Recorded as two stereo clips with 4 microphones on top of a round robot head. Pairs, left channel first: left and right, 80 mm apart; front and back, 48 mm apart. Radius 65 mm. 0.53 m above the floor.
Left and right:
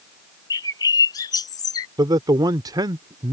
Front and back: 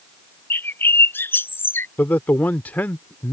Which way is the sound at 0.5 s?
40° left.